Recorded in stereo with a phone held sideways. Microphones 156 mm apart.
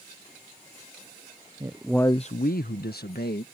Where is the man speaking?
25° right (ahead or behind); by 3.5 s 85° left.